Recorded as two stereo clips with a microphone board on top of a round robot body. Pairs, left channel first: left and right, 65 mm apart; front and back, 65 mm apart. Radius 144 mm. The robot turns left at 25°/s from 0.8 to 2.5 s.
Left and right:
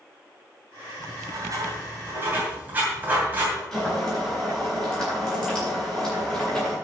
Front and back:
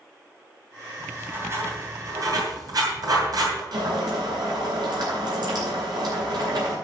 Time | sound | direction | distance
1.0 | writing | 115° right | 2.5 m
3.7 | boiling | 175° left | 5.5 m